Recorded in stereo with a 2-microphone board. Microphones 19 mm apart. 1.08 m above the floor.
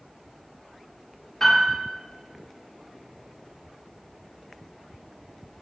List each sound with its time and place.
1.4 s a piano: 20° left (ahead or behind), 0.7 m